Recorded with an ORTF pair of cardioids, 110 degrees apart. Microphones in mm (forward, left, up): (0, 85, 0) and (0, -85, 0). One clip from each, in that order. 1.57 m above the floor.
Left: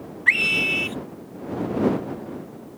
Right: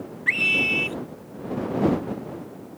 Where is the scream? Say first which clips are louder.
Left 2 dB; 25° left.